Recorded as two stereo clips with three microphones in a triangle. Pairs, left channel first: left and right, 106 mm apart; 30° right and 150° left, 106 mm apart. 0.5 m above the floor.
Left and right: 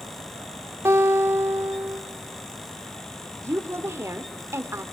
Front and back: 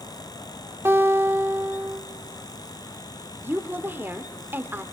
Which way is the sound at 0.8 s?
145° right.